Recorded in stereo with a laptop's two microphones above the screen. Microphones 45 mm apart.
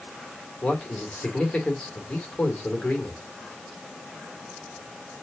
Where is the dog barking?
No dog barking in this recording.